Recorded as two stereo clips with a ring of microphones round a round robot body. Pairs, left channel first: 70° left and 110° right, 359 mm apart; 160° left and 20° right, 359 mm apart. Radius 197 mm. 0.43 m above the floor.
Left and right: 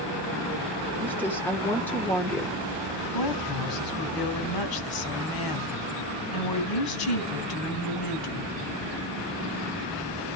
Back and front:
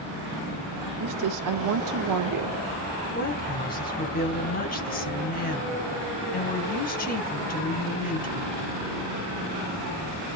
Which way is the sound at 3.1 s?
90° left.